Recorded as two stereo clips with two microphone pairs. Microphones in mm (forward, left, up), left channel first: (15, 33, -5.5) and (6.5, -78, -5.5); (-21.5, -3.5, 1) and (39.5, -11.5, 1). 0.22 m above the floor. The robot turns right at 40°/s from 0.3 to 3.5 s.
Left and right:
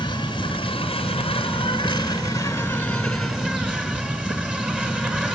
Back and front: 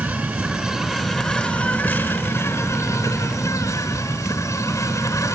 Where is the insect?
60° left, 2.0 m; by 5.4 s 170° right, 2.0 m.